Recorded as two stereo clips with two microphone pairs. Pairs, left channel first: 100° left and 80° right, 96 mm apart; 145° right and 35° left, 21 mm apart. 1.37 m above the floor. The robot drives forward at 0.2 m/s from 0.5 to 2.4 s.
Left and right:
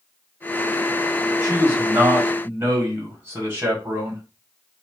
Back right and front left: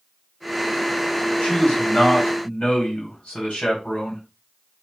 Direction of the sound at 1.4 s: 150° right.